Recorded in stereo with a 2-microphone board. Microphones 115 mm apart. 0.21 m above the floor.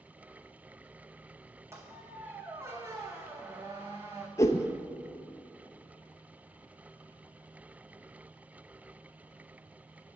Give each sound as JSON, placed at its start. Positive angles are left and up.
{"t": 1.7, "sound": "a squeak", "side_deg": -25, "distance_m": 1.0}
{"t": 4.4, "sound": "a whoosh", "side_deg": 25, "distance_m": 0.7}